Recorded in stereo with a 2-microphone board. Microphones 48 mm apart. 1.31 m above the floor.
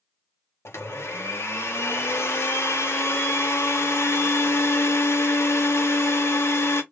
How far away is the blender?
About 1.1 m.